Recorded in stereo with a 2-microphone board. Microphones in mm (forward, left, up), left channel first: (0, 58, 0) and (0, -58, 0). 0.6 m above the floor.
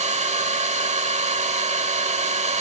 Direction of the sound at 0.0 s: 80° right.